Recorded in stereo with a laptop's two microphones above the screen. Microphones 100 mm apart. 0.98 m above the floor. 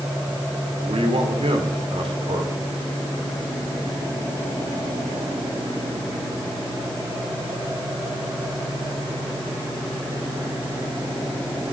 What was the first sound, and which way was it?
A man speaking, 80° right.